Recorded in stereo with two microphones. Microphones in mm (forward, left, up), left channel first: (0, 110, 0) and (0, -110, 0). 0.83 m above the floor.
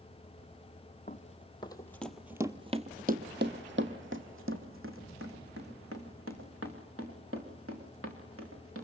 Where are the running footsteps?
35° left (ahead or behind), 1.7 m; by 8.8 s 80° right, 6.5 m.